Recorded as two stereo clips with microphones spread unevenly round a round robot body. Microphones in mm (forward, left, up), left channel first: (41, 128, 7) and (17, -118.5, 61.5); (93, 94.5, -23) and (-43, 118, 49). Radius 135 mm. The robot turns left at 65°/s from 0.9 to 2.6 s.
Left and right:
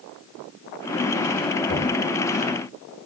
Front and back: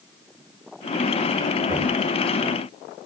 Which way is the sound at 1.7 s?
135° left.